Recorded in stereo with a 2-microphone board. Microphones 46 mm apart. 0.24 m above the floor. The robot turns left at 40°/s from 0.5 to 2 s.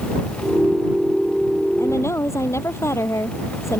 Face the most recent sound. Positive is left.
turn(degrees=75)  # may be behind; listen again after turning